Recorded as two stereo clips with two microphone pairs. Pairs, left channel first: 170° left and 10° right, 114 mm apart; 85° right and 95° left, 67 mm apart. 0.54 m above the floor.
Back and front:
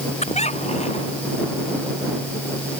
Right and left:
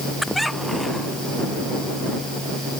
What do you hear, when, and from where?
0.2 s a squeak: 175° right